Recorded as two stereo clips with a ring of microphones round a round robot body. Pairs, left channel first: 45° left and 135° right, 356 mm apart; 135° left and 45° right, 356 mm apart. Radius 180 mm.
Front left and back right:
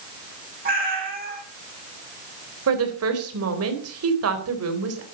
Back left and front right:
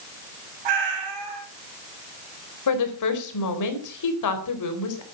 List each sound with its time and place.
0.7 s a cat meowing: 65° right, 7.5 m
2.7 s a woman speaking: 175° left, 4 m